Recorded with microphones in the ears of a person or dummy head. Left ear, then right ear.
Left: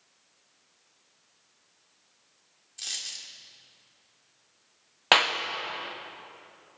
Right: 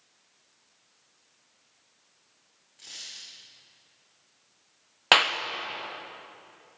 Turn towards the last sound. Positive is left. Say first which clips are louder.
# right 1 dB
turn(degrees=-5)  # may be behind; listen again after turning